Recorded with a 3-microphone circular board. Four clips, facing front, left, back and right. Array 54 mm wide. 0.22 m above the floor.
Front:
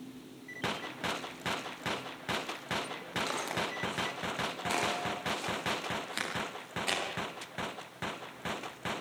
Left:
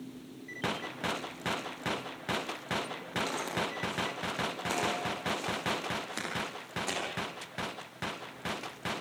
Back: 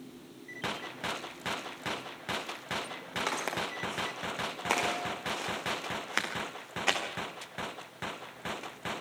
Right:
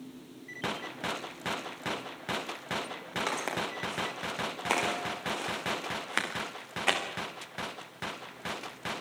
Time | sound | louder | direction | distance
3.3 | footsteps | right 4 dB, back 3 dB | 135° right | 9 m